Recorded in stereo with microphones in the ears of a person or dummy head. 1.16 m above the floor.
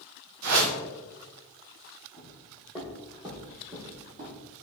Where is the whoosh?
80° right, 0.9 m.